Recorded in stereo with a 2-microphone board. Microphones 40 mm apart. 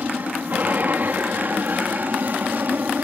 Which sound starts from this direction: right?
An aircraft, at 0.0 s.